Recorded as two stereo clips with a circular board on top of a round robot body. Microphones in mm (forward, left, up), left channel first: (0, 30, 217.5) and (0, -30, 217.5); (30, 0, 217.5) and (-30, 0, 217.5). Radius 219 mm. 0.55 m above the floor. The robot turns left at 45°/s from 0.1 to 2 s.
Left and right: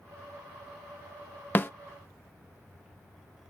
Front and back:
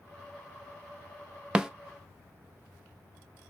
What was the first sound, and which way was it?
A snare drum, 110° left.